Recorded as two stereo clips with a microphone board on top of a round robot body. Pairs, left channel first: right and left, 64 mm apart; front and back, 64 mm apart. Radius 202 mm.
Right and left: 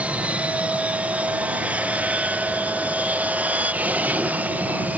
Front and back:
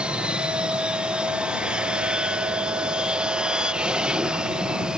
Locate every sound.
0.0 s an aircraft: 125° left; by 5.0 s 115° left